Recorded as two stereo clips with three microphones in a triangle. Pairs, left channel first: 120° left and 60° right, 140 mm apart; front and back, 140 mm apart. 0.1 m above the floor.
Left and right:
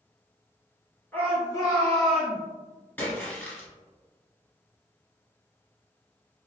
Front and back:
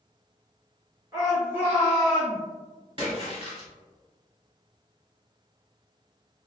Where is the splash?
175° right, 1.1 m.